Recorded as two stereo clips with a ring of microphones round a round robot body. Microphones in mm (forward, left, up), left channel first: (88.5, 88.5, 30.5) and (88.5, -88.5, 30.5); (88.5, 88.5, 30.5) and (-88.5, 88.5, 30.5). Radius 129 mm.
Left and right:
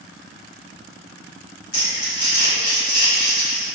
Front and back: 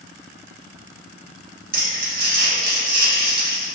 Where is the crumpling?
145° left, 0.9 m.